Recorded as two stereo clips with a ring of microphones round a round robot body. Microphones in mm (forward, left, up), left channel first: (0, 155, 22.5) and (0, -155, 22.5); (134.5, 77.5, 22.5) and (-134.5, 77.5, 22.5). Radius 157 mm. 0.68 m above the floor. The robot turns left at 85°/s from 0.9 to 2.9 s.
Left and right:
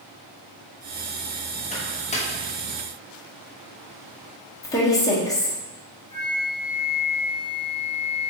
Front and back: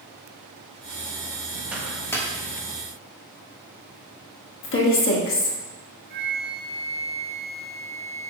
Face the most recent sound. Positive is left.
turn(degrees=150)